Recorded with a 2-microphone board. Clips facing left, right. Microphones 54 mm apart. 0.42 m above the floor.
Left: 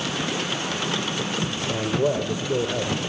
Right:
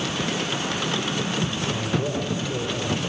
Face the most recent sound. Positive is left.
turn(degrees=40)  # may be behind; listen again after turning